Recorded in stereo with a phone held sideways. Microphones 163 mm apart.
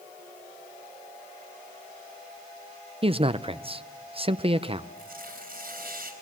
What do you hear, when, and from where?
3.0 s a man speaking: 35° right (ahead or behind), 0.7 m
5.0 s tearing paper: 65° right (ahead or behind), 4.5 m